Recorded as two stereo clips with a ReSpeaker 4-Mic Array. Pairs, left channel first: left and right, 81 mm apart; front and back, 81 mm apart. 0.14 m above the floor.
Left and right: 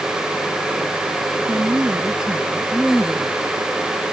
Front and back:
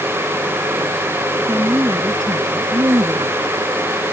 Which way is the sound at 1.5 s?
140° right.